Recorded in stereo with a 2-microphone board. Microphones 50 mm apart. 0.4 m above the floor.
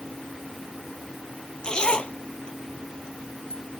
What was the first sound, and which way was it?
A zipper, 20° left (ahead or behind).